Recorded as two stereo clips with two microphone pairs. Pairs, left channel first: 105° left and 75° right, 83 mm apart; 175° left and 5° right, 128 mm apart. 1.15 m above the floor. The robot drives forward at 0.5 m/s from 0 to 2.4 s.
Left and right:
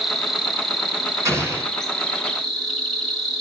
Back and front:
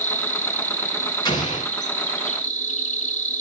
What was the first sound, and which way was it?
An insect, 165° right.